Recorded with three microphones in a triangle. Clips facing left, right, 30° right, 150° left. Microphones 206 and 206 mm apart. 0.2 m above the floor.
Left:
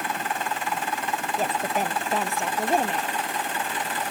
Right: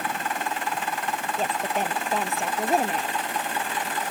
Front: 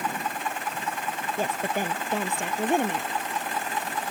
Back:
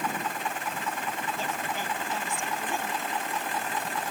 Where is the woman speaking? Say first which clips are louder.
Left 1 dB, front 5 dB; 5° left; by 3.1 s 5° right.